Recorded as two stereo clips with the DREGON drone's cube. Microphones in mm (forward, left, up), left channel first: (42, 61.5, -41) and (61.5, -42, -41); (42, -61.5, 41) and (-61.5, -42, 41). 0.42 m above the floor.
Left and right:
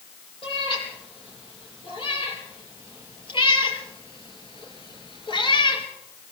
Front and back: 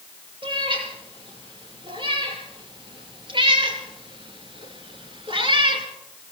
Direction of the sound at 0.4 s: 135° left.